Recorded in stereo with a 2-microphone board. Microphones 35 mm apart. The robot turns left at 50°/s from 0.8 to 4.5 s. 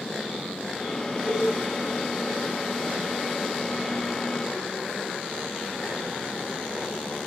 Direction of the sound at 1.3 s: 5° left (ahead or behind).